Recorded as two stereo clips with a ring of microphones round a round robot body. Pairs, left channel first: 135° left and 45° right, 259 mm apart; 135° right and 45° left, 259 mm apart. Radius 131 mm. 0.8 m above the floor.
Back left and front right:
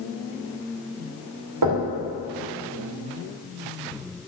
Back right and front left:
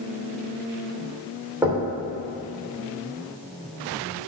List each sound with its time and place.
1.6 s knocking: 35° right, 2.5 m